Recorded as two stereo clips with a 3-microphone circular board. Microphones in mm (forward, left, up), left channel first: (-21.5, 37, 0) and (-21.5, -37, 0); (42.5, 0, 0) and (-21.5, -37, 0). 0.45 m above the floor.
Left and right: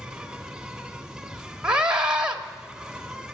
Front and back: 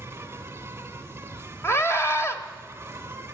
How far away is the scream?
About 1.8 m.